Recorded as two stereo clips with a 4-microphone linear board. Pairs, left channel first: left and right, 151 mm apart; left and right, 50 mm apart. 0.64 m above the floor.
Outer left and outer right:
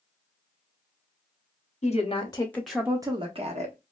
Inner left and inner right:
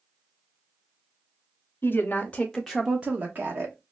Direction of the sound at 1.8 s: 45° left (ahead or behind).